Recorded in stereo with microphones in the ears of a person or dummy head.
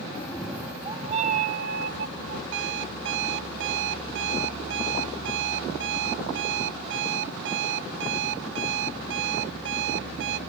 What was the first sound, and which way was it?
A cat meowing, 15° left (ahead or behind).